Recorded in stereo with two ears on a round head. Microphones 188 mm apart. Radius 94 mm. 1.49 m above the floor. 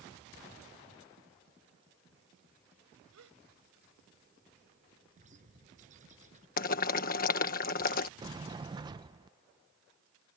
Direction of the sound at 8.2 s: 20° right (ahead or behind).